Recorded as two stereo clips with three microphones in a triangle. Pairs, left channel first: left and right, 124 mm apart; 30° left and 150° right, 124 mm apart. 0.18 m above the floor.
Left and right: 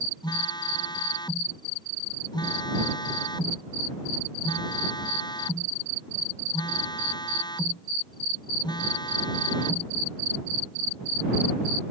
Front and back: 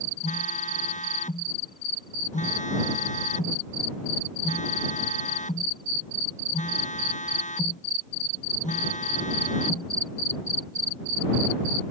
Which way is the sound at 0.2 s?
35° left.